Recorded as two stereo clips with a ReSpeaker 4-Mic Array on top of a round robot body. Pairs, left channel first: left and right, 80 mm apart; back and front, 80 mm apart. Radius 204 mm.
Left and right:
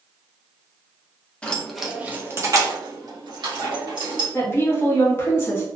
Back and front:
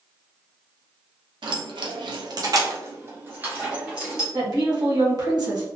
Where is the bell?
No bell in this recording.